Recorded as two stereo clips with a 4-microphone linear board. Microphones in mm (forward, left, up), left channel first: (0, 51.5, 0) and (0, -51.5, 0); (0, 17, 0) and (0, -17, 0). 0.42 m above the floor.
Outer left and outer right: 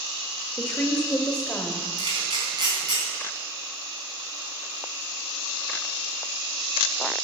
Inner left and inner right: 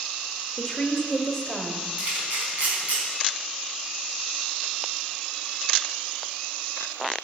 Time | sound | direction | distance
0.6 | a woman speaking | 10° left (ahead or behind) | 1.6 m
2.0 | a camera shutter | 50° right (ahead or behind) | 4 m